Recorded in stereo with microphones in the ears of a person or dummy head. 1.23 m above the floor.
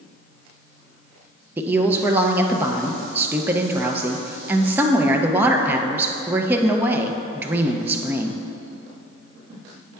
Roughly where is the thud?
No thud in this recording.